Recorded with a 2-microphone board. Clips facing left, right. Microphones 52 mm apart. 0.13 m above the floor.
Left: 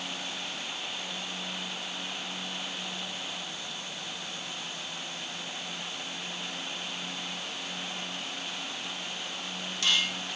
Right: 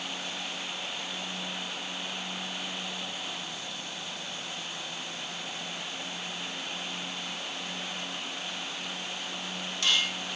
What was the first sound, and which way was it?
Only background noise.